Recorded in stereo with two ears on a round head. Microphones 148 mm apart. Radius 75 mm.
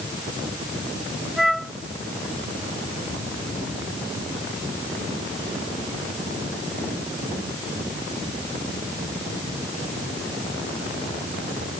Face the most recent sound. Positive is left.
turn(degrees=0)  # may be behind; listen again after turning